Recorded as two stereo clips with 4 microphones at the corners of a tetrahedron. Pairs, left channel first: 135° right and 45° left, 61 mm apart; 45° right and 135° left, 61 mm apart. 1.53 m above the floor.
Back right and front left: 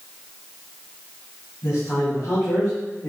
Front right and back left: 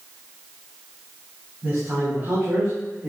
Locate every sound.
1.6 s a man speaking: 175° right, 3.5 m; by 3.1 s 170° left, 4 m